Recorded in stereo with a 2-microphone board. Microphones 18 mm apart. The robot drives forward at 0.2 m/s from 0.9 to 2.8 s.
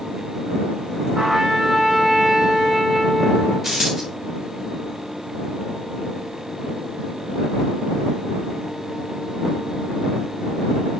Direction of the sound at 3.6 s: 5° left (ahead or behind).